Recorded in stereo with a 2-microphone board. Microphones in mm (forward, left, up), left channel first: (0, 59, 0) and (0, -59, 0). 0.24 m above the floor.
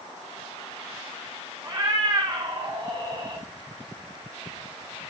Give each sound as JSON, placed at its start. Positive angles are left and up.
{"t": 1.6, "sound": "a cat meowing", "side_deg": -35, "distance_m": 0.8}